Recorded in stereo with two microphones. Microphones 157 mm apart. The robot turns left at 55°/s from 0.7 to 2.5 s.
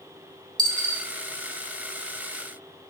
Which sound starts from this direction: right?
A dropped coin, at 0.6 s.